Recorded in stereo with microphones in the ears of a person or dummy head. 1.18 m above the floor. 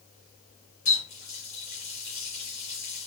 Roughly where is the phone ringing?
No phone ringing in this recording.